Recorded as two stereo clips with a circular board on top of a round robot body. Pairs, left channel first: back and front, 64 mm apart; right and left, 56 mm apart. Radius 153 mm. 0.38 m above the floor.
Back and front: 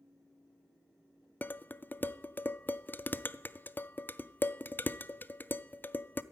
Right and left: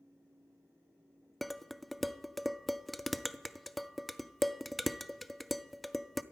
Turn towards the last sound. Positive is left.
turn(degrees=180)